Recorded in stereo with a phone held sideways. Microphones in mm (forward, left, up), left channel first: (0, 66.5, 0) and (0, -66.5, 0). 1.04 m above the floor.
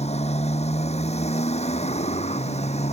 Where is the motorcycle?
55° left (ahead or behind).